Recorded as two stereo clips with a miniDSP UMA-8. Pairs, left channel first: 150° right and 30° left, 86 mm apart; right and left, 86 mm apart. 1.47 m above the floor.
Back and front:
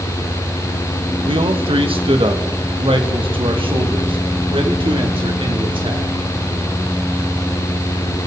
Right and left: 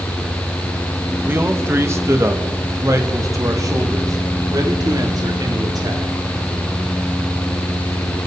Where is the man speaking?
25° left, 2 m; by 6.1 s 45° left, 5 m.